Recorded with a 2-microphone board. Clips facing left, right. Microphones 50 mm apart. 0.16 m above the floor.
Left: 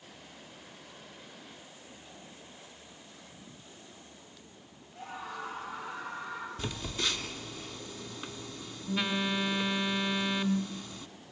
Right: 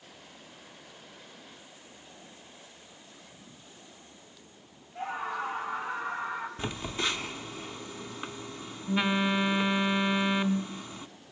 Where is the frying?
I don't hear frying.